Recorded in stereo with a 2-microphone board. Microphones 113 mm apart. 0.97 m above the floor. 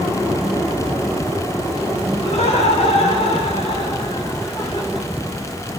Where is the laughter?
70° left (ahead or behind), 3 m; by 5.1 s 35° left (ahead or behind), 2.5 m.